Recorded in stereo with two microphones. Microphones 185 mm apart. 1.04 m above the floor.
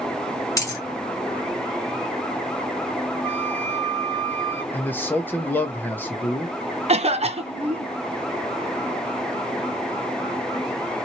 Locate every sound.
0.6 s a dropped coin: 20° left (ahead or behind), 1.7 m
3.2 s a flute: 10° left (ahead or behind), 1.1 m
4.7 s a man speaking: 10° left (ahead or behind), 0.6 m
6.9 s a cough: 35° right (ahead or behind), 0.6 m